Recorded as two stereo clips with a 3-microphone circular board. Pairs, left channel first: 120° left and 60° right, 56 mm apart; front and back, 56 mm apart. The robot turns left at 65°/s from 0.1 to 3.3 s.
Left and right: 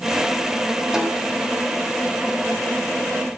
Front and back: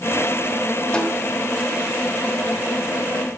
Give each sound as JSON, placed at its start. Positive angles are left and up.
{"t": 0.9, "sound": "a snare drum", "azimuth_deg": 5, "distance_m": 1.2}